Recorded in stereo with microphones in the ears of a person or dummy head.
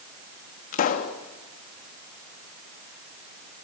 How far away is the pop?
About 1.6 m.